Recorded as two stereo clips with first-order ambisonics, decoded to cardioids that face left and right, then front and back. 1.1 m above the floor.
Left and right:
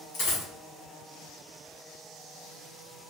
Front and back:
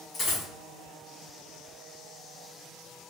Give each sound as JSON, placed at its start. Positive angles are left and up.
{"t": 0.1, "sound": "a dropped coin", "azimuth_deg": 60, "distance_m": 1.3}